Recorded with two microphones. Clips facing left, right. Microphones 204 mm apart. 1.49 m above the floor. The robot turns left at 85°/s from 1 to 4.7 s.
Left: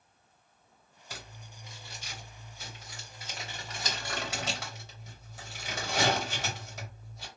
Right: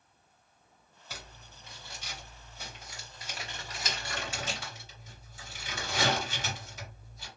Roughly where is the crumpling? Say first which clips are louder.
Left 1 dB; centre.